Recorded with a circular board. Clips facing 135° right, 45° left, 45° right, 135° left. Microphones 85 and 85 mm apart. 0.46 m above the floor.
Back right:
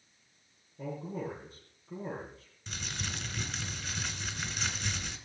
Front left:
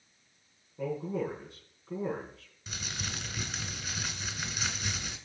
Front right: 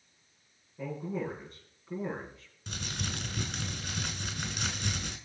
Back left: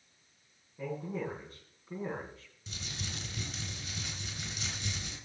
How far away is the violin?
No violin in this recording.